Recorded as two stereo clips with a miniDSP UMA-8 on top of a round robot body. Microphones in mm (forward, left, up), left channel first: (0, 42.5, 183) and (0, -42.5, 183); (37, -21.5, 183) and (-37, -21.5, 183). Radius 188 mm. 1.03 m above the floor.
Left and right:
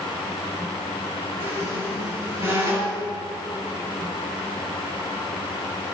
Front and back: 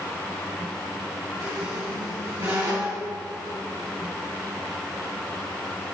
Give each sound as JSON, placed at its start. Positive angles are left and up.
{"t": 1.4, "sound": "a squeak", "azimuth_deg": -145, "distance_m": 4.5}